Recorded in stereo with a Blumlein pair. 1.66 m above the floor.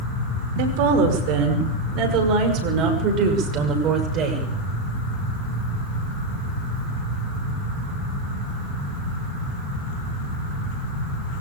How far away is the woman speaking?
About 5.5 m.